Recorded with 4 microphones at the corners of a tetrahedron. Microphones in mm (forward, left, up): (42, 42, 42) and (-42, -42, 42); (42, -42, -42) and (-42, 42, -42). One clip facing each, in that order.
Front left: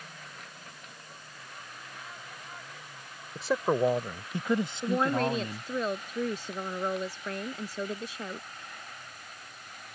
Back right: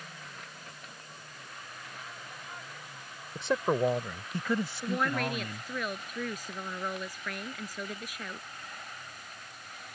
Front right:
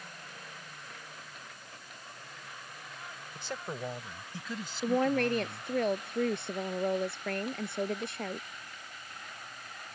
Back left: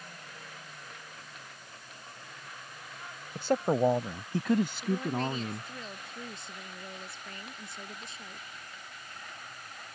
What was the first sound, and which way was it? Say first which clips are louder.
A man speaking: front left 1 dB, back left 13 dB; 135° left.